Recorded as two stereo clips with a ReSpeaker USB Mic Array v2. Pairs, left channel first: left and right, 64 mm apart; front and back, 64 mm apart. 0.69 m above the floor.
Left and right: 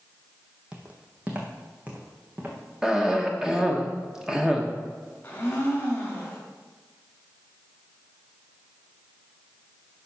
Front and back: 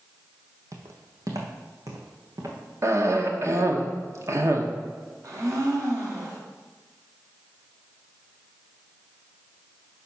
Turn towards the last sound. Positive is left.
turn(degrees=150)